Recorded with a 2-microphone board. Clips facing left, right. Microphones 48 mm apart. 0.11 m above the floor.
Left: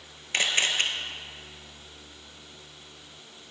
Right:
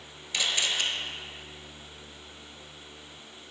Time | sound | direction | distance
0.3 | a camera shutter | 45° left (ahead or behind) | 0.7 m